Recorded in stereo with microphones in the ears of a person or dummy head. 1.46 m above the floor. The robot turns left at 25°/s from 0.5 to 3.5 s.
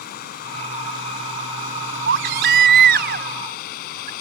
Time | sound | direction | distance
0.0 | running water | 125° left | ?
2.1 | a baby crying | 90° right | ?